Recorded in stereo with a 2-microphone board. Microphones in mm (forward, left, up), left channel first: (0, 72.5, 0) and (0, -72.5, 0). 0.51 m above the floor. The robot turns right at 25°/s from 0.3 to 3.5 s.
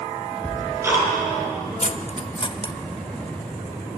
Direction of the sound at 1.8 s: 50° left (ahead or behind).